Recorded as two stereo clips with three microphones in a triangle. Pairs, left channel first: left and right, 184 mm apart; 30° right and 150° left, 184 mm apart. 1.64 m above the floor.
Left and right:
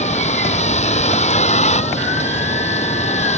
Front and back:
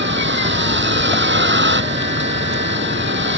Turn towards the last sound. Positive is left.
turn(degrees=140)